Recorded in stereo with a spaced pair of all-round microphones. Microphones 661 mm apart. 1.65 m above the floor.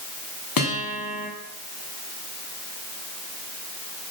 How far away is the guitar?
About 1.6 m.